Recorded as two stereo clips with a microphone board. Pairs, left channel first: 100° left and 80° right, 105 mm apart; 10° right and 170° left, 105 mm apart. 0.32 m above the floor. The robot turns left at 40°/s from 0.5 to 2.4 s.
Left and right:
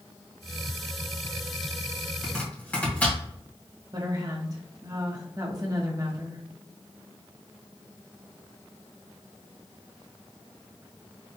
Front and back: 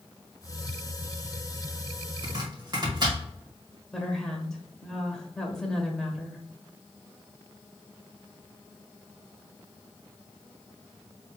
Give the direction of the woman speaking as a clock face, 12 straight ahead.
3 o'clock.